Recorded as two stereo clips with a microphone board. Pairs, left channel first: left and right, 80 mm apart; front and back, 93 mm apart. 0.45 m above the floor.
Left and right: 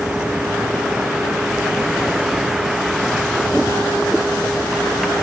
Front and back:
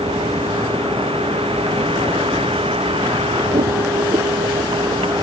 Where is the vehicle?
170° right; by 5.2 s straight behind.